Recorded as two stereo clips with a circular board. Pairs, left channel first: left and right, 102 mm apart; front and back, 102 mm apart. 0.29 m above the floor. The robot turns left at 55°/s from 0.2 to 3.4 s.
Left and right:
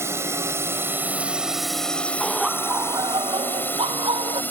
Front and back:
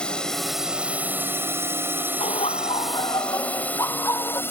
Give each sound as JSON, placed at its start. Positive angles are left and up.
{"t": 0.0, "sound": "a drone", "azimuth_deg": -70}
{"t": 2.2, "sound": "laughter", "azimuth_deg": 5}